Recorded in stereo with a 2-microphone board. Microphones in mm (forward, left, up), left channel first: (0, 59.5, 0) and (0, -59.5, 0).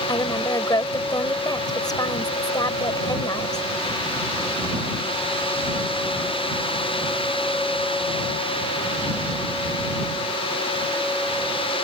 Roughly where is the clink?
No clink in this recording.